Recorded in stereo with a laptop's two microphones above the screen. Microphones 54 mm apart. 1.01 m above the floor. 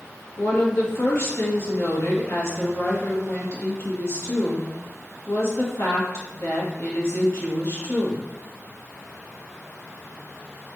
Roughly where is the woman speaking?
Left.